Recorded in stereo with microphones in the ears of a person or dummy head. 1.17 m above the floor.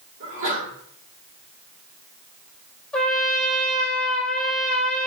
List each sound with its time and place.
0.2 s a sneeze: 70° right (ahead or behind), 2.5 m
2.9 s a trumpet: centre (ahead or behind), 0.7 m